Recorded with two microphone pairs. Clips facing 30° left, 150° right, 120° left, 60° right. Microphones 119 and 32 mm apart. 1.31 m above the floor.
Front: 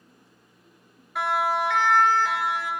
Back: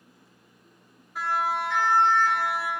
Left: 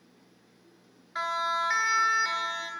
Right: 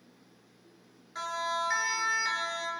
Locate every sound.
1.1 s a siren: 60° left, 2.5 m; by 2.7 s 40° left, 3 m